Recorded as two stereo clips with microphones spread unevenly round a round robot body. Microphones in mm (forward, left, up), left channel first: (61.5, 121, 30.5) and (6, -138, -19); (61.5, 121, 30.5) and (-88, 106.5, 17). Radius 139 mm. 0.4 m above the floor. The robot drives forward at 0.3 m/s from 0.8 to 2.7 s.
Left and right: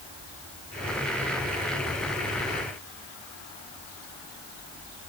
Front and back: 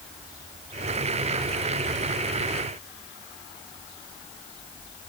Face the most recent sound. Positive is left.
No sound to turn to.